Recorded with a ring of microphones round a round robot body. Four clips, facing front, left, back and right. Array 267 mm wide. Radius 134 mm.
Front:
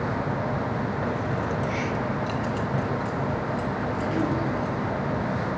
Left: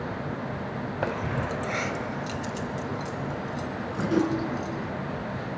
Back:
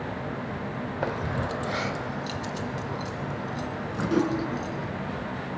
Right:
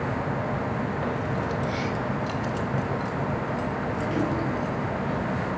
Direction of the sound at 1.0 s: 125° left.